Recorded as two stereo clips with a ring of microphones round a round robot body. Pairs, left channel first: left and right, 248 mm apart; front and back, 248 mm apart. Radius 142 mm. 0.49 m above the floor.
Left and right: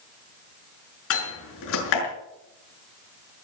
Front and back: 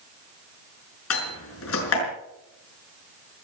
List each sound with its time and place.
1.1 s a door slam: 45° left, 6 m